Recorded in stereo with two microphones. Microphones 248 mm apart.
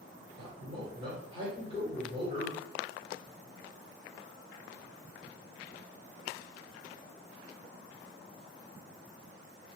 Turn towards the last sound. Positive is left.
turn(degrees=-20)  # may be behind; listen again after turning